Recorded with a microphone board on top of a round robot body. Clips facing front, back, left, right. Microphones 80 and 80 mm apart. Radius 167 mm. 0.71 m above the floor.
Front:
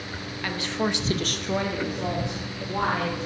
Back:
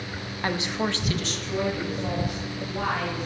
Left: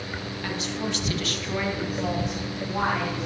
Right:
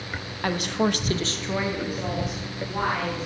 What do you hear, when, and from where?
0.4 s a woman speaking: 125° right, 1.1 m; by 3.3 s 5° left, 4 m